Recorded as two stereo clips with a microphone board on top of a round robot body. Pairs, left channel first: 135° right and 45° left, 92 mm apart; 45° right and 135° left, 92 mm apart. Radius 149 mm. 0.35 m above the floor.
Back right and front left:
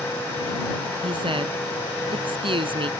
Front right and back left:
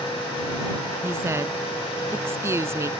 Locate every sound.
1.0 s a woman speaking: 75° left